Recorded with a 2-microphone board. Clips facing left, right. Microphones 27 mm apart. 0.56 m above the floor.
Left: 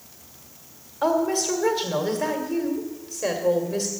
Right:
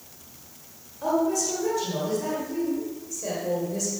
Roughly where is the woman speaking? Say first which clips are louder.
Left 2 dB; left.